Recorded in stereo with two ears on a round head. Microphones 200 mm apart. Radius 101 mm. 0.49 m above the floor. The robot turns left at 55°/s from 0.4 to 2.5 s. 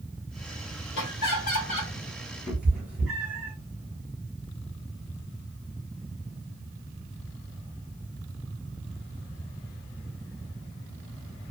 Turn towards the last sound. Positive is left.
turn(degrees=-5)  # may be behind; listen again after turning